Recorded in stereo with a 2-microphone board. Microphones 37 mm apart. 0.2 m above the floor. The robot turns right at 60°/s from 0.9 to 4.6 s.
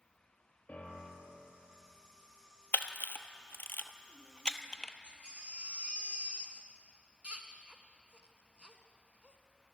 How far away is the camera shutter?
About 1.1 m.